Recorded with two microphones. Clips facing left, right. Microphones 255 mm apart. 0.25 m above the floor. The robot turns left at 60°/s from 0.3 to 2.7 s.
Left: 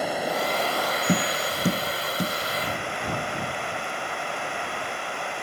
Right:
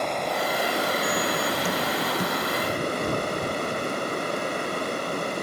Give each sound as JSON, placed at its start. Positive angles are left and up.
{"t": 0.0, "sound": "running water", "azimuth_deg": 5}
{"t": 1.1, "sound": "tapping", "side_deg": 75}